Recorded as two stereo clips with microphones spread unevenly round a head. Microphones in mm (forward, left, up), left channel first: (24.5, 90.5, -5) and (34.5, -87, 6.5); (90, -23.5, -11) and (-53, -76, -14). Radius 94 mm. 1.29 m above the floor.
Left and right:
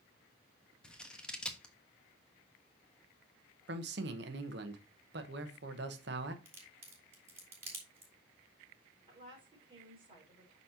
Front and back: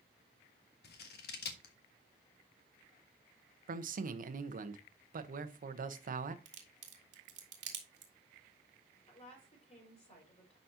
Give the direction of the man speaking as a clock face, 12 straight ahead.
4 o'clock.